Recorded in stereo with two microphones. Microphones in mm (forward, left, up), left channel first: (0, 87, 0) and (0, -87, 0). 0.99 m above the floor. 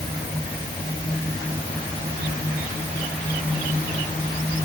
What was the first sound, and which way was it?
Only background noise.